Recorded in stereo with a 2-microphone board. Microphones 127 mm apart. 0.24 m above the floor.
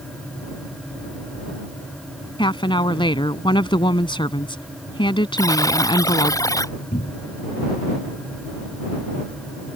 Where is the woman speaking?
40° left (ahead or behind).